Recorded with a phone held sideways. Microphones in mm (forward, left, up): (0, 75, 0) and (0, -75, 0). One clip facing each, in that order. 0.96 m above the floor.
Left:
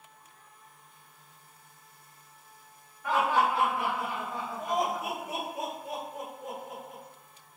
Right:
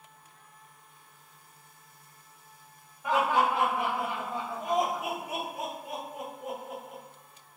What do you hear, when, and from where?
3.0 s laughter: 20° right (ahead or behind), 1.2 m; by 7.0 s 5° right (ahead or behind), 1.7 m